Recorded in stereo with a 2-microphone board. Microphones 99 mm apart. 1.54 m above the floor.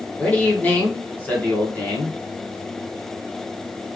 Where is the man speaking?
20° left (ahead or behind), 1.2 m.